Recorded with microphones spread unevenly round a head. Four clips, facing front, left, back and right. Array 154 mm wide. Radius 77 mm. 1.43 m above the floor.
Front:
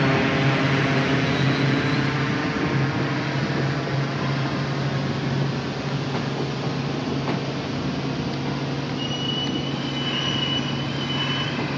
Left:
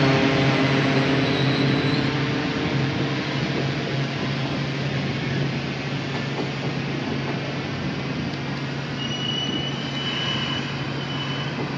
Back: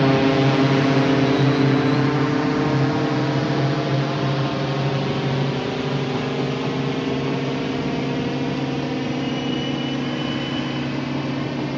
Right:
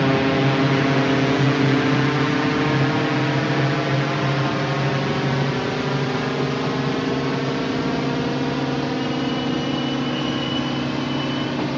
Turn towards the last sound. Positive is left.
turn(degrees=-125)